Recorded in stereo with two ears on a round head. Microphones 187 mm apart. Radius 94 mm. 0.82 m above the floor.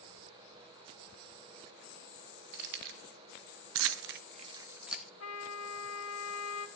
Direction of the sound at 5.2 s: 85° left.